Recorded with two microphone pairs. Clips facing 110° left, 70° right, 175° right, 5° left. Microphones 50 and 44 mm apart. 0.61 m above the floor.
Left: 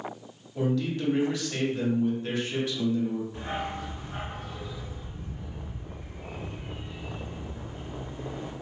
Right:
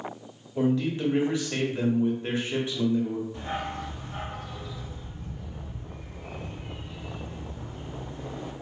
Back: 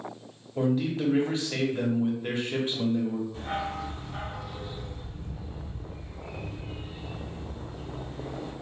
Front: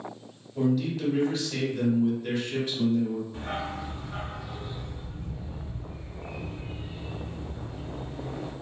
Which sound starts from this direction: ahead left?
A dog barking, at 3.3 s.